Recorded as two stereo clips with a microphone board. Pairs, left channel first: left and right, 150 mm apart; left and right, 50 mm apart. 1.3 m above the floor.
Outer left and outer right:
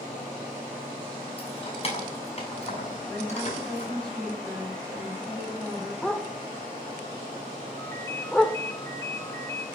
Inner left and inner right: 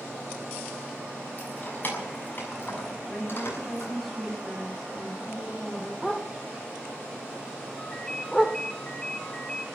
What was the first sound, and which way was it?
Keys jangling, 40° left (ahead or behind).